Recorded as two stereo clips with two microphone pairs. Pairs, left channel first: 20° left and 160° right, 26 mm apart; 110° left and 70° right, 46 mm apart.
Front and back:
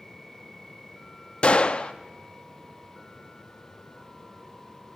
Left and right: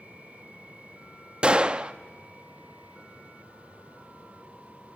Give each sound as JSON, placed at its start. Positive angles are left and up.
{"t": 1.4, "sound": "a gunshot", "azimuth_deg": -5, "distance_m": 0.6}